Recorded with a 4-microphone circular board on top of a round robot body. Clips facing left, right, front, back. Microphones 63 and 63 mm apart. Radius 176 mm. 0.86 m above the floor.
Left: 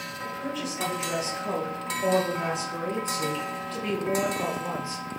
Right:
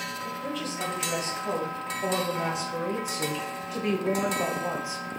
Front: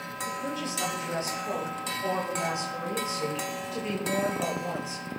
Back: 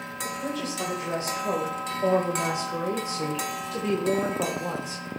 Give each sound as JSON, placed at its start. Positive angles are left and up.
{"t": 0.2, "sound": "a woman speaking", "azimuth_deg": 175, "distance_m": 5.0}